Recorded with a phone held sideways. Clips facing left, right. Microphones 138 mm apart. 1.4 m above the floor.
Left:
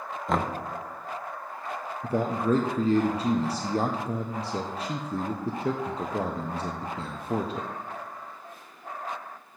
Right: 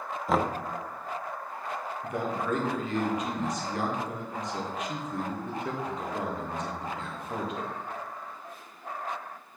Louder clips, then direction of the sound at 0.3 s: Right 1 dB; centre (ahead or behind).